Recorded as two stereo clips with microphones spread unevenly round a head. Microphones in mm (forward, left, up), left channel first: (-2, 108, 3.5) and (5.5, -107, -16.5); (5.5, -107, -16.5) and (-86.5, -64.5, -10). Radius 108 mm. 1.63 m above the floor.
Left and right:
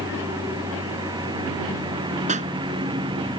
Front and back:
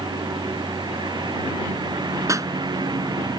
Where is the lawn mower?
160° right.